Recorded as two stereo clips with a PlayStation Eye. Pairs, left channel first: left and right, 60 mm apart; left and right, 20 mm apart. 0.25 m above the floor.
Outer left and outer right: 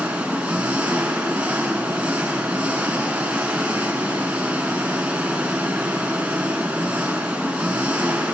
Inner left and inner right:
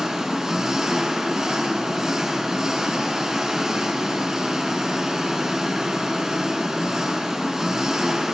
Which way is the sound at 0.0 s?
20° right (ahead or behind).